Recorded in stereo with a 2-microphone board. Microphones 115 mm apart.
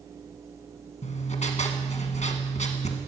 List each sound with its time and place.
1.0 s writing: 70° left (ahead or behind), 1.3 m